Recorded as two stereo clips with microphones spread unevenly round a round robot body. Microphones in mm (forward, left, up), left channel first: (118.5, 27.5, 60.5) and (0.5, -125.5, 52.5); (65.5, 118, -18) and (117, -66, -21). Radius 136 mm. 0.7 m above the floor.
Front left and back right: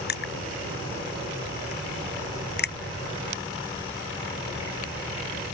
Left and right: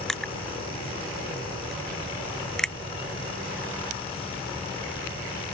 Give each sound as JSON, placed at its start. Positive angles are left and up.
{"t": 0.1, "sound": "crushing", "azimuth_deg": 20}